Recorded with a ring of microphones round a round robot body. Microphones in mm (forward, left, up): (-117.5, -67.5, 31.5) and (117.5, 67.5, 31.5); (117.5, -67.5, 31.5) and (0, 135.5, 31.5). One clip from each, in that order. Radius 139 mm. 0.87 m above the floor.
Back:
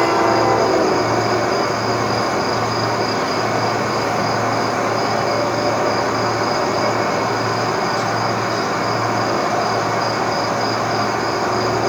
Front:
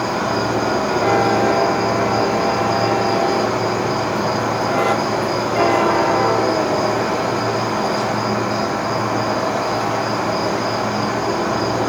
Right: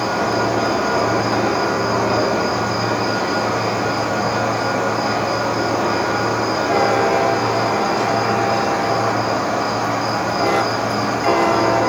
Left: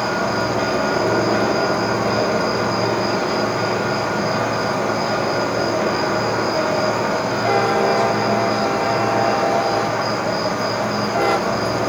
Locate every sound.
0.0 s an insect: 135° right, 4 m